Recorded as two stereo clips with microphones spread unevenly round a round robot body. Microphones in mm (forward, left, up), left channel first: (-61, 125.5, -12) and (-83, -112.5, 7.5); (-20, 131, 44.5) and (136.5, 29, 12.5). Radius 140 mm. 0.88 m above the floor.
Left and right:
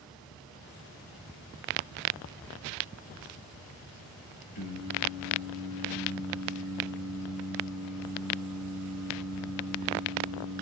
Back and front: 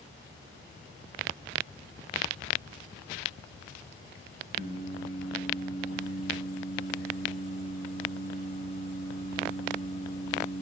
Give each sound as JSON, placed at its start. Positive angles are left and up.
{"t": 4.5, "sound": "singing", "azimuth_deg": 90, "distance_m": 3.5}